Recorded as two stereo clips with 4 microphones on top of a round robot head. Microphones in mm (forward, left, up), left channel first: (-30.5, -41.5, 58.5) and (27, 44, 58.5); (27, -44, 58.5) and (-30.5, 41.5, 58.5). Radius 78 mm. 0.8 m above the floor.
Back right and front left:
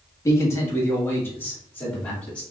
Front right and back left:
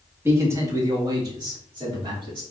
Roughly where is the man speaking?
Behind.